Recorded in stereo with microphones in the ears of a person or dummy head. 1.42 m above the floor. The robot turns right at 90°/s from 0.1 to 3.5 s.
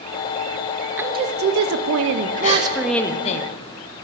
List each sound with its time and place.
1.0 s a woman speaking: 170° right, 0.9 m; by 3.4 s 50° left, 0.9 m
2.4 s a gasp: 40° left (ahead or behind), 2.5 m; by 2.6 s 25° left (ahead or behind), 2.5 m